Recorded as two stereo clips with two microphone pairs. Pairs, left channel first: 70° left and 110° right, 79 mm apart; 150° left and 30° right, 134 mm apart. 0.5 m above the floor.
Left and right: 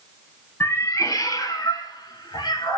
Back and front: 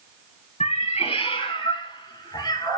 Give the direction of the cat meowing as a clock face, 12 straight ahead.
8 o'clock.